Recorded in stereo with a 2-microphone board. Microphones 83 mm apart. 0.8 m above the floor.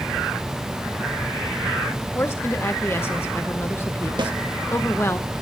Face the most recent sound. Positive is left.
turn(degrees=-65)  # may be behind; listen again after turning